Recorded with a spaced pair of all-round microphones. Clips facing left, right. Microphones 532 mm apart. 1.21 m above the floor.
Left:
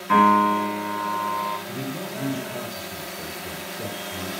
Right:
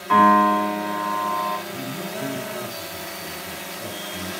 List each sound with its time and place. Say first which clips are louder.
0.1 s a piano: right 2 dB; 45° left (ahead or behind), 5.5 m
1.7 s a man speaking: even; 70° left (ahead or behind), 3 m